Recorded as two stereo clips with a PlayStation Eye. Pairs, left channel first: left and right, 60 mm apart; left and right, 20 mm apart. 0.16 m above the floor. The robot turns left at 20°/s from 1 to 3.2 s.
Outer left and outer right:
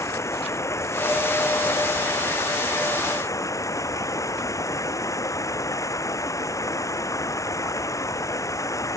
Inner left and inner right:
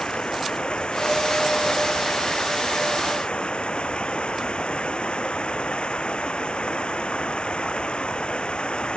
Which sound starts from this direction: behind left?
Running water, at 0.0 s.